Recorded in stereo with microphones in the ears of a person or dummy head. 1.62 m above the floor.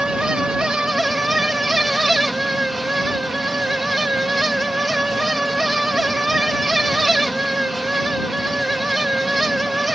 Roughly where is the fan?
Centre.